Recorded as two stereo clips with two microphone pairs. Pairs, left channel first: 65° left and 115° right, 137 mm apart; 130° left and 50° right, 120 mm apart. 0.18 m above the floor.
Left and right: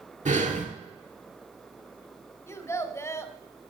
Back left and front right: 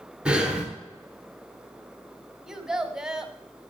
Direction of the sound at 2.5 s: 25° left.